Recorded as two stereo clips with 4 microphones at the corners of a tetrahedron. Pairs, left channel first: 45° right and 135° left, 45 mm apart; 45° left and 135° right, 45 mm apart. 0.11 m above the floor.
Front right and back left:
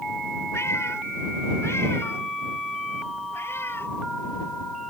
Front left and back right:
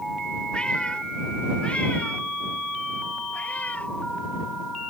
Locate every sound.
0.5 s a cat meowing: 25° right; by 3.9 s 10° right